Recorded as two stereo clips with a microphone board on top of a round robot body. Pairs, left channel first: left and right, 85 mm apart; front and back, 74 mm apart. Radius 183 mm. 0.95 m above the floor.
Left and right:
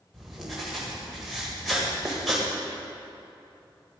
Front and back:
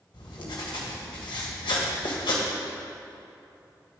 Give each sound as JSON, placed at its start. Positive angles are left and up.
{"t": 0.1, "sound": "writing", "azimuth_deg": 0, "distance_m": 1.4}